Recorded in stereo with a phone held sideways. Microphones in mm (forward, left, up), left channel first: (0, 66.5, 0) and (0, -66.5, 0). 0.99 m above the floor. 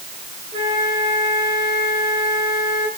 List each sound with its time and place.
0.5 s a flute: 40° right (ahead or behind), 4 m